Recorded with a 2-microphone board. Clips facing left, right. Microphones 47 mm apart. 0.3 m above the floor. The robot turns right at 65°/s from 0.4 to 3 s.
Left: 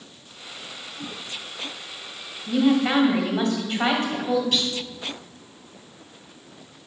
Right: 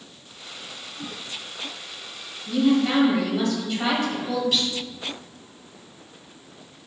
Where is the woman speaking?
95° left, 1.6 m; by 4.4 s 130° left, 1.6 m.